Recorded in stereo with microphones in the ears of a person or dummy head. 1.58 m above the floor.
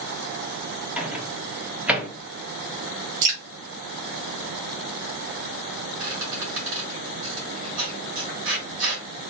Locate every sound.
1.0 s a microwave: centre (ahead or behind), 0.8 m
3.2 s dripping: 50° right (ahead or behind), 1.3 m
6.0 s a squeak: 75° right (ahead or behind), 2 m